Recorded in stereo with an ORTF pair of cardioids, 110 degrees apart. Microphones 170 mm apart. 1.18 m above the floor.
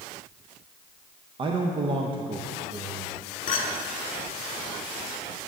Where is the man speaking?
30° right, 0.7 m.